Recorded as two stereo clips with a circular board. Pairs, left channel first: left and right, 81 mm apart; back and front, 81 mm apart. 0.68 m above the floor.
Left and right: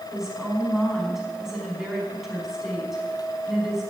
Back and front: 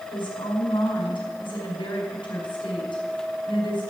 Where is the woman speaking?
175° right, 5 m.